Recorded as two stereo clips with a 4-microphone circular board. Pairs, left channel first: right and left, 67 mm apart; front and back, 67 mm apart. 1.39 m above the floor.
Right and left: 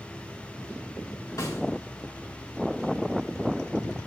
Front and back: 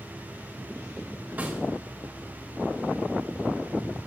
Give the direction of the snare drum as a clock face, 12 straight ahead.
4 o'clock.